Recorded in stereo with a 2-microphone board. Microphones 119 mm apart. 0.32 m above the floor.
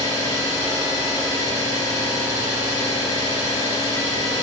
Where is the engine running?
35° right (ahead or behind), 1.6 m.